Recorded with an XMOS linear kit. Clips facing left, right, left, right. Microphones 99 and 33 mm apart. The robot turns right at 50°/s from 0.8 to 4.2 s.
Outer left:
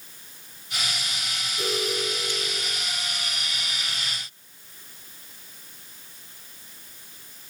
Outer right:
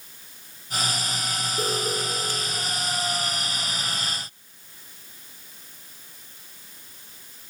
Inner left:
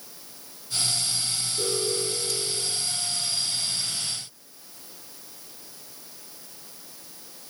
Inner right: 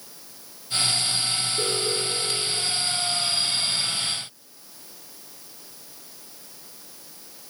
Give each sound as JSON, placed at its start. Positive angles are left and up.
{"t": 1.6, "sound": "an alarm", "azimuth_deg": -140, "distance_m": 7.0}